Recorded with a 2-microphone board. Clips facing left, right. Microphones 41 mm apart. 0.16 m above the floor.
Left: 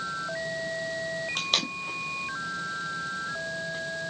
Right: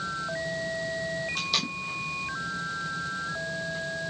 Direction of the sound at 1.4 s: 55° left (ahead or behind).